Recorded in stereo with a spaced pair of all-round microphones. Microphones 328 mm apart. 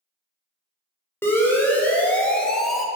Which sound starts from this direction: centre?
A siren, at 1.2 s.